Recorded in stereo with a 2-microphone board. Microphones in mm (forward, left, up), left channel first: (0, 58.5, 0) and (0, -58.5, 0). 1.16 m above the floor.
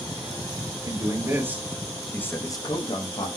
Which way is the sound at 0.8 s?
30° right (ahead or behind).